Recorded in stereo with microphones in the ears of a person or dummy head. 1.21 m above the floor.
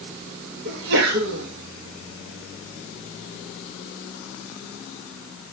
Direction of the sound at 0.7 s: 65° right (ahead or behind).